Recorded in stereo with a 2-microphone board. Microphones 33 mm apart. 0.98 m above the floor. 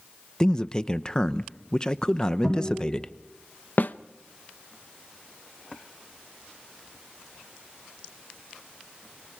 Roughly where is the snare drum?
Left.